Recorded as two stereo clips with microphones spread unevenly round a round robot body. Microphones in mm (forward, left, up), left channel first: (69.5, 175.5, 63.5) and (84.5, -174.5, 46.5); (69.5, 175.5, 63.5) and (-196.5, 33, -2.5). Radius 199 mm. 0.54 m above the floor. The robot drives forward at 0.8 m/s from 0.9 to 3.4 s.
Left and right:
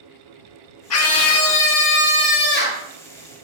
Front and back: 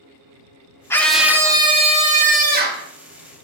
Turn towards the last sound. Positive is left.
turn(degrees=165)